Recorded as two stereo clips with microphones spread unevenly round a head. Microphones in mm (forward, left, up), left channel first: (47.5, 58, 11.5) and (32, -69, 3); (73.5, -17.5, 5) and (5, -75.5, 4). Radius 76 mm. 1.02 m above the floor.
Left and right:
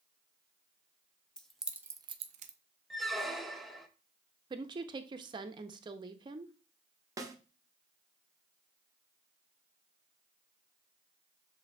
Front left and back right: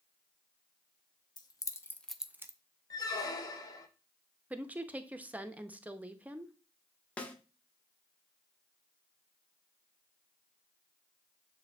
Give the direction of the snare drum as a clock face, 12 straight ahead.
1 o'clock.